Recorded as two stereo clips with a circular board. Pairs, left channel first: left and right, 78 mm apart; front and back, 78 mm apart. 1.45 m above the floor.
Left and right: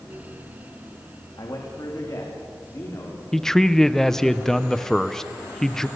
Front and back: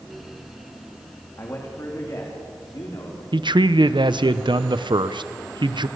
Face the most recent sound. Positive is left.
turn(degrees=175)